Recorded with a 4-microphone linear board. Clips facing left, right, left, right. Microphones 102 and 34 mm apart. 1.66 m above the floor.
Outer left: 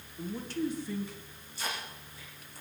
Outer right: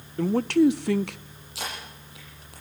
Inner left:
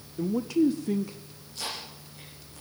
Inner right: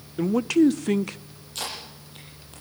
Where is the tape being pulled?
80° right, 9.5 m.